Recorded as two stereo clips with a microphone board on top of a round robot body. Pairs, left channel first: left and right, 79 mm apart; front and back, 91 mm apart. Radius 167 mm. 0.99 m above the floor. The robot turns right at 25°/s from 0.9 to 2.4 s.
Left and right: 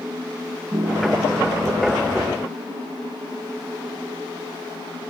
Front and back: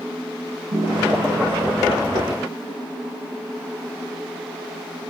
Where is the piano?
155° right, 6.5 m; by 2.5 s 115° right, 6.5 m.